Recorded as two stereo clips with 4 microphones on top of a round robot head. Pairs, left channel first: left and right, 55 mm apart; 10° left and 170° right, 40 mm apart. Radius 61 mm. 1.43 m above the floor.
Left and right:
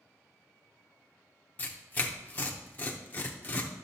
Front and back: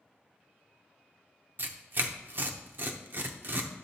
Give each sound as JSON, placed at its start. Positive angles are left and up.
{"t": 1.6, "sound": "tearing paper", "azimuth_deg": 155, "distance_m": 0.8}